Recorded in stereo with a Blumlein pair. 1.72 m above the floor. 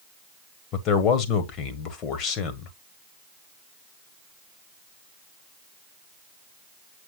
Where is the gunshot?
No gunshot in this recording.